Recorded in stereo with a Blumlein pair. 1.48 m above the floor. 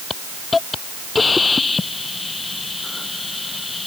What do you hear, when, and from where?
0.1 s a hiss: 10° left